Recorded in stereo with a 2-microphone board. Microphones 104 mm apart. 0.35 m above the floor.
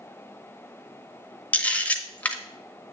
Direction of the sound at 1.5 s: 15° left (ahead or behind).